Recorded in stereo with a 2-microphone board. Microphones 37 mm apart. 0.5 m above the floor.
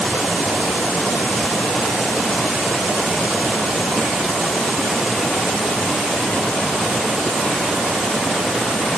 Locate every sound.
Only background noise.